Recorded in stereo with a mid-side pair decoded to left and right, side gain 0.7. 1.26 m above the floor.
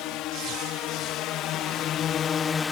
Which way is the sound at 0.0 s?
60° left.